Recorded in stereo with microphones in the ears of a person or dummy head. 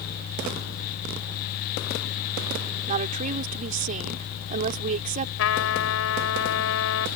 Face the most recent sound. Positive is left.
turn(degrees=70)  # may be behind; listen again after turning